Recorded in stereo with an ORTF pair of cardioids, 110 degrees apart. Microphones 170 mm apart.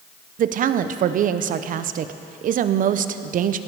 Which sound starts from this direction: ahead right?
A woman speaking, at 0.4 s.